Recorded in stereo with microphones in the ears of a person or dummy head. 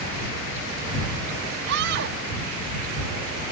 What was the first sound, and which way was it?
A scream, 60° right (ahead or behind).